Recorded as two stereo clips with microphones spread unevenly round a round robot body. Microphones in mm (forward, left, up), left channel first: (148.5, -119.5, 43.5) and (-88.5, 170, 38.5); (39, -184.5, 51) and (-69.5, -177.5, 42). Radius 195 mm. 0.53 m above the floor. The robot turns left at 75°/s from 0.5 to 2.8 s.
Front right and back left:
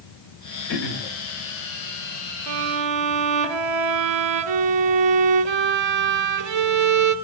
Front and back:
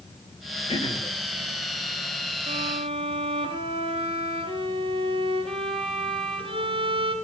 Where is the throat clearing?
30° right, 3 m; by 1.1 s 60° right, 3 m.